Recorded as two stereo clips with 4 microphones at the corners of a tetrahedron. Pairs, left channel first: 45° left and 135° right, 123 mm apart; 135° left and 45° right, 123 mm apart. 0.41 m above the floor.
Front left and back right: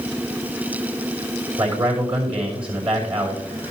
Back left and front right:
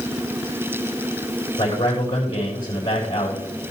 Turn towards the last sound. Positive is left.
turn(degrees=-175)